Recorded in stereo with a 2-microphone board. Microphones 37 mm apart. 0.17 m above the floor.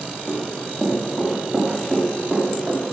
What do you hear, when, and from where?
0.3 s running footsteps: 5° right (ahead or behind), 7.5 m; by 2.8 s 20° right (ahead or behind), 9 m